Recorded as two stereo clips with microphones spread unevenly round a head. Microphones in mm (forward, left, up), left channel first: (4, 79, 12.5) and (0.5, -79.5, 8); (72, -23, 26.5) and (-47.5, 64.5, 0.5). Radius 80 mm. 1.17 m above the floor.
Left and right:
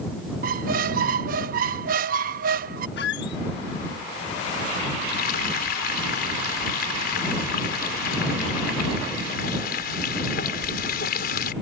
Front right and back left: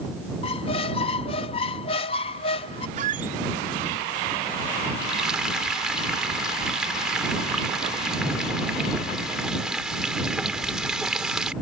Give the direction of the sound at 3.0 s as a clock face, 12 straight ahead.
9 o'clock.